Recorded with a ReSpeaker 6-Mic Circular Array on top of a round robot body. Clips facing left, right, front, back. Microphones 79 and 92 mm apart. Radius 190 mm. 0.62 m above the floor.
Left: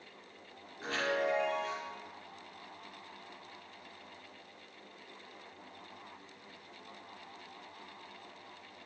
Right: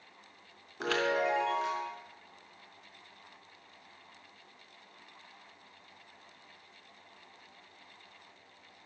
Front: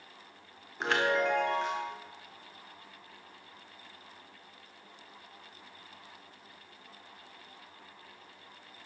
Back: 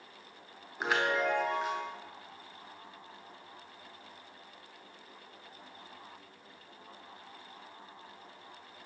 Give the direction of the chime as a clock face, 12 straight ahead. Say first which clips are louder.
Right 3 dB, front 2 dB; 3 o'clock.